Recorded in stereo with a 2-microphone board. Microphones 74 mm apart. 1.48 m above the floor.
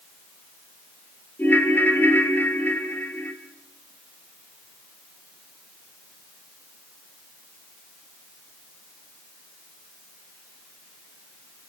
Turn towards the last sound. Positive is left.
turn(degrees=25)  # may be behind; listen again after turning